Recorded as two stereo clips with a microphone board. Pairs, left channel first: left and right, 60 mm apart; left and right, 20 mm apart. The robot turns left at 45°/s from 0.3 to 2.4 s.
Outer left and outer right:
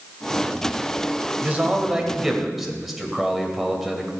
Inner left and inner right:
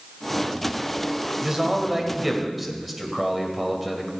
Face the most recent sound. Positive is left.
turn(degrees=180)